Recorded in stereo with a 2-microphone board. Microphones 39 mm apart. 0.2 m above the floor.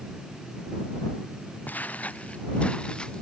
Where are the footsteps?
45° left (ahead or behind); by 3.2 s 20° left (ahead or behind).